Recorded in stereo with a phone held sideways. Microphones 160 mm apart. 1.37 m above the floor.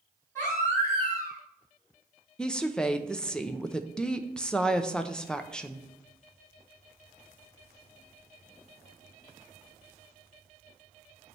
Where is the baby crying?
15° left (ahead or behind), 4.5 m.